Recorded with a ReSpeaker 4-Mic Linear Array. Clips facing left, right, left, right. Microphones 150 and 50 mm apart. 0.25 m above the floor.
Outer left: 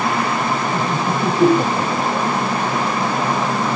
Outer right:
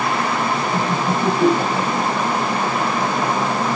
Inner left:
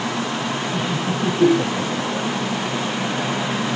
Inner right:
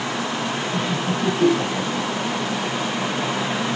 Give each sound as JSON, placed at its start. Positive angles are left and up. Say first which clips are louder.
{"t": 0.7, "sound": "laughter", "louder": "even, even", "side_deg": 5, "distance_m": 1.4}